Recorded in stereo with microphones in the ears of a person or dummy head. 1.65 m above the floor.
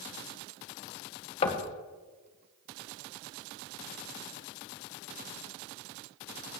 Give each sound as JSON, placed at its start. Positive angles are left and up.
{"t": 1.4, "sound": "knocking", "side_deg": 40, "distance_m": 1.3}